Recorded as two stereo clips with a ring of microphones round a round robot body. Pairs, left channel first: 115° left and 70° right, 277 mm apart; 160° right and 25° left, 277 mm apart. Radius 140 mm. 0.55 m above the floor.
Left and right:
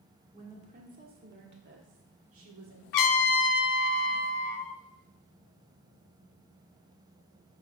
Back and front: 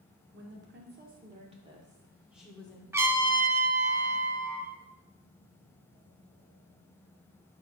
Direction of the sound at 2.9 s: 105° left.